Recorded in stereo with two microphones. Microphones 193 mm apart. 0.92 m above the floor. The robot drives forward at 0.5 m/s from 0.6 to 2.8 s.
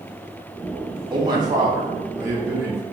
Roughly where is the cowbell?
I don't hear a cowbell.